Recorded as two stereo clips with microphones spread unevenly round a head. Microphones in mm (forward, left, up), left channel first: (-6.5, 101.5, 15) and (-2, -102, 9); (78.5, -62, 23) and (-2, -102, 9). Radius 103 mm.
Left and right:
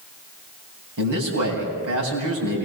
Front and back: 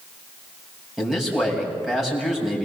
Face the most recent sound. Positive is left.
turn(degrees=-70)